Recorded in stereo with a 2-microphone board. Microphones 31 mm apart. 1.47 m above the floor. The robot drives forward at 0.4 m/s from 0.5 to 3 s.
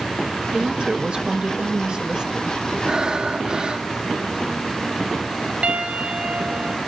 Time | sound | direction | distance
0.5 | a woman speaking | 35° right (ahead or behind) | 2 m
2.9 | breathing | 25° right (ahead or behind) | 2.5 m
5.6 | a piano | 45° right (ahead or behind) | 5 m